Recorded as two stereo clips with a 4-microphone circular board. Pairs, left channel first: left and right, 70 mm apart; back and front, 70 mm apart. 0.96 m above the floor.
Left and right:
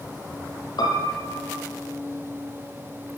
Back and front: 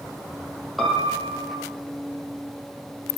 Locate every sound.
0.8 s a piano: 95° left, 6.5 m